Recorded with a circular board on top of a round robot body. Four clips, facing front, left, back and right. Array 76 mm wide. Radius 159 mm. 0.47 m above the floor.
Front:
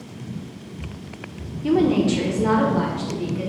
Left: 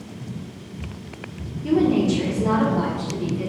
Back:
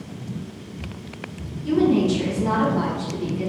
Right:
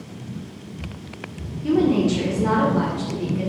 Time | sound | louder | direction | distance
1.6 | a woman speaking | even, even | 5° right | 2.5 m